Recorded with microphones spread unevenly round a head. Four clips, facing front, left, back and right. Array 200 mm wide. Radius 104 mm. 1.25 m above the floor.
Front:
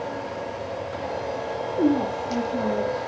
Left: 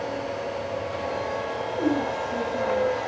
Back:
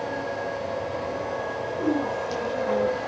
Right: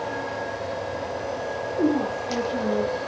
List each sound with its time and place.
1.7 s a woman speaking: 30° right, 9 m